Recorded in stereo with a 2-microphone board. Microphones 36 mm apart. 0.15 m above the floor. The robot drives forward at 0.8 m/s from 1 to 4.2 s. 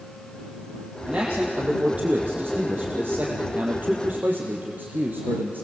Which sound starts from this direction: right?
A man speaking, at 1.1 s.